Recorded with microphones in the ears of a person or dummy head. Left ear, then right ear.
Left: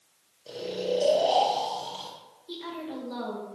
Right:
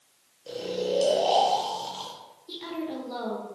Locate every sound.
0.5 s snoring: 5° left (ahead or behind), 0.5 m
2.5 s a woman speaking: 10° right (ahead or behind), 0.9 m